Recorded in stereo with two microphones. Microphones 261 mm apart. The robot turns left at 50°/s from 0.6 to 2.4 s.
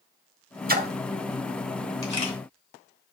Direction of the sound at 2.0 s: 10° left (ahead or behind).